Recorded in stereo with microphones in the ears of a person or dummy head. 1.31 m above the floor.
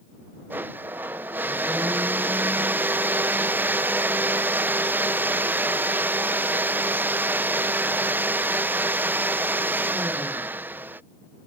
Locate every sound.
0.5 s a blender: 10° right (ahead or behind)